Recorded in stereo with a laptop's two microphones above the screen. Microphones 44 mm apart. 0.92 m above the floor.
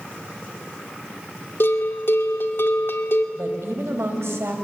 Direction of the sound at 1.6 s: 65° left (ahead or behind).